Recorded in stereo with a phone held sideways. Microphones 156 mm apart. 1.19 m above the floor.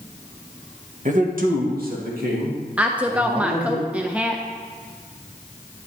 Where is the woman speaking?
10° right (ahead or behind), 0.6 m.